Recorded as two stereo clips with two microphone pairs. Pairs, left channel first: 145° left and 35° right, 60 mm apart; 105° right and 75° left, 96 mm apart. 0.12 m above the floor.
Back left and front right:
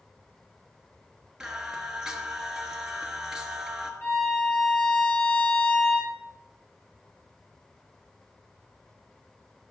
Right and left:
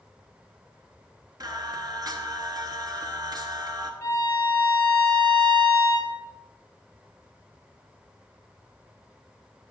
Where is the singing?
45° left, 1.3 m.